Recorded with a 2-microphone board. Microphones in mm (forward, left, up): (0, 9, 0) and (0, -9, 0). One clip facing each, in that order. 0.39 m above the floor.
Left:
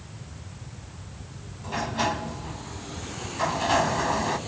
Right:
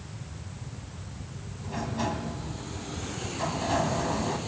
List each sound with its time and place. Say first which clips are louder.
1.6 s a sliding door: left 5 dB; 45° left (ahead or behind), 1.0 m